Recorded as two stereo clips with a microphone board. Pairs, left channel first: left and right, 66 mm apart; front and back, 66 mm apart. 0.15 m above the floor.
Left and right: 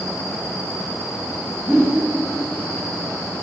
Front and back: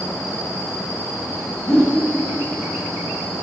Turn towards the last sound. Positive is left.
turn(degrees=-15)